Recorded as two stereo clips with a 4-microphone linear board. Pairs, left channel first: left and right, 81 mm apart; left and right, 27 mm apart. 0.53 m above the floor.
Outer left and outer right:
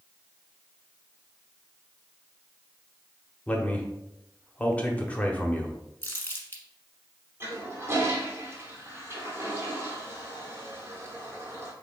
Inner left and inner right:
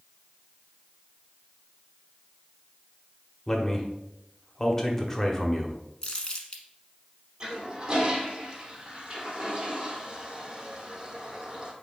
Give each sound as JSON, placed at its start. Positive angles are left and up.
{"t": 3.5, "sound": "a man speaking", "side_deg": 15, "distance_m": 0.9}
{"t": 6.0, "sound": "crumpling", "side_deg": 30, "distance_m": 1.2}
{"t": 7.4, "sound": "a toilet flushing", "side_deg": -30, "distance_m": 1.2}